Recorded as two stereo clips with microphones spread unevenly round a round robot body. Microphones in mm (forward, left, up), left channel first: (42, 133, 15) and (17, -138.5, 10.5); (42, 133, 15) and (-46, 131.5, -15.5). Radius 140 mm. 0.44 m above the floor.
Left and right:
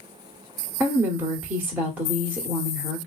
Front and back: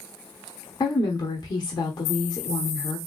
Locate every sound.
0.8 s a woman speaking: 25° right, 0.7 m